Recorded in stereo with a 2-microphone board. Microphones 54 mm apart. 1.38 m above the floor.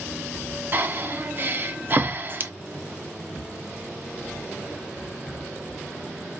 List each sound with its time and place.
0.7 s breathing: 35° right (ahead or behind), 0.6 m